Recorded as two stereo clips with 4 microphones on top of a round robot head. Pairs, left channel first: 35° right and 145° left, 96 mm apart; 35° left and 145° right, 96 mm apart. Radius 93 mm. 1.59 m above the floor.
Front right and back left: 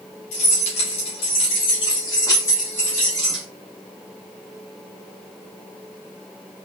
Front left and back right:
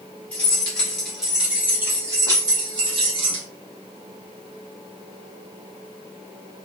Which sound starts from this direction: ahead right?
Keys jangling, at 0.3 s.